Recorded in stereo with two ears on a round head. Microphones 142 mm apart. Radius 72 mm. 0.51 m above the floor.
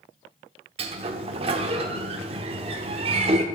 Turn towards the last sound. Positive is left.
turn(degrees=-35)  # may be behind; listen again after turning